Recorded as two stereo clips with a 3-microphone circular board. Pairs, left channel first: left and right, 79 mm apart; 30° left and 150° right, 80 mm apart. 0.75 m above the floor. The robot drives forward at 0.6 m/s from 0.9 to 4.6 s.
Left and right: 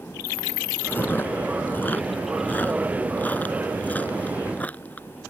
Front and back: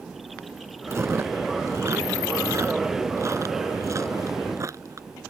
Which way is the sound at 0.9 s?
155° left.